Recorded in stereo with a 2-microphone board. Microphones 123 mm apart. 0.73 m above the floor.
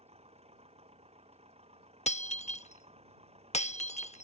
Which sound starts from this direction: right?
An engine running, at 0.0 s.